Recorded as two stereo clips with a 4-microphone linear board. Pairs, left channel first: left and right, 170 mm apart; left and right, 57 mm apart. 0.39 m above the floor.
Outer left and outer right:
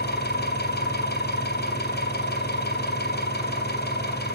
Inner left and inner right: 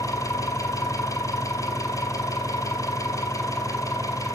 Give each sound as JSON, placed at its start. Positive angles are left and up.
{"t": 0.0, "sound": "an engine running", "side_deg": 70, "distance_m": 3.5}